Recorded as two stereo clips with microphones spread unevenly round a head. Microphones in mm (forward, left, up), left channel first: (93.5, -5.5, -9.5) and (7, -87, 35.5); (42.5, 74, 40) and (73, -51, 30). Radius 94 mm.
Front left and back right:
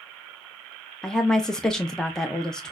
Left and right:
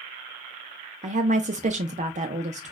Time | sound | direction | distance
1.0 | a woman speaking | 40° right | 0.5 m